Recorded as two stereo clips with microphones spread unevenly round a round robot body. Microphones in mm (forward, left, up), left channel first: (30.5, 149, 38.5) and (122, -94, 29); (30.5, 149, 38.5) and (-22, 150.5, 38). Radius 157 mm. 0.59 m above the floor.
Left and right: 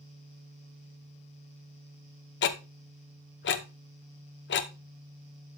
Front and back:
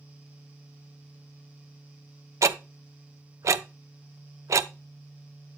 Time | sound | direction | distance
2.4 | ticking | 165° left | 0.6 m